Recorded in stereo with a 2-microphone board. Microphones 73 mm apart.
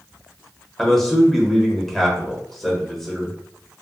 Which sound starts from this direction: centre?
A man speaking, at 0.8 s.